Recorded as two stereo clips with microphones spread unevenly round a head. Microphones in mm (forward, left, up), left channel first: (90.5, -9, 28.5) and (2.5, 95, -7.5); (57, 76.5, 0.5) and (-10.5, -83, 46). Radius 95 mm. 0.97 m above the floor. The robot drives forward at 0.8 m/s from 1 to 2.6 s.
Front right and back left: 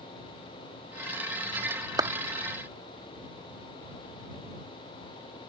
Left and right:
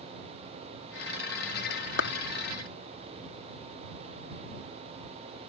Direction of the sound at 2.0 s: 70° left.